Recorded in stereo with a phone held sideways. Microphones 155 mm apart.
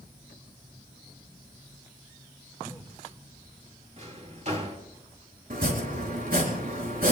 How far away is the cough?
About 2.5 m.